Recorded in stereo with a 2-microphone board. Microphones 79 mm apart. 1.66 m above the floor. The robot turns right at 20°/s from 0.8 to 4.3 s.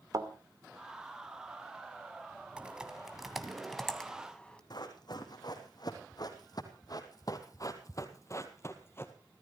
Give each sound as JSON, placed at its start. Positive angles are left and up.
{"t": 0.1, "sound": "a thud", "side_deg": -50, "distance_m": 2.0}
{"t": 2.6, "sound": "typing on a keyboard", "side_deg": -15, "distance_m": 2.0}
{"t": 4.7, "sound": "running footsteps", "side_deg": 60, "distance_m": 3.5}